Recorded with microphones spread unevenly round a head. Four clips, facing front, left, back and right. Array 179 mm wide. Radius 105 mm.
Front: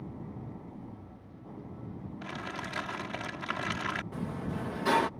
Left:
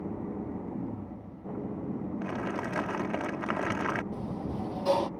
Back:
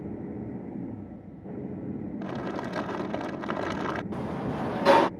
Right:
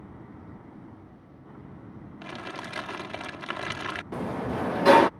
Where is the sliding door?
95° right.